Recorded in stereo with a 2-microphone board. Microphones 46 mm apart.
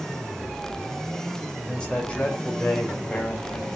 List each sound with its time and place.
1.7 s a man speaking: 20° left (ahead or behind), 4.5 m; by 3.8 s 40° left (ahead or behind), 6.5 m